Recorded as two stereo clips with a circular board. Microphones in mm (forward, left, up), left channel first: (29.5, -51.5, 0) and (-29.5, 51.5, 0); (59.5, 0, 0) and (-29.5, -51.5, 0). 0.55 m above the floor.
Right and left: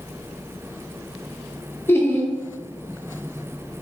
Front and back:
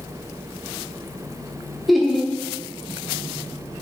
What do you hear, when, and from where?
1.9 s laughter: 60° right, 0.6 m